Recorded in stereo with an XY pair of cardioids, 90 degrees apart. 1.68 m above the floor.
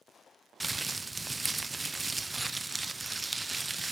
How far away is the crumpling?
About 0.7 m.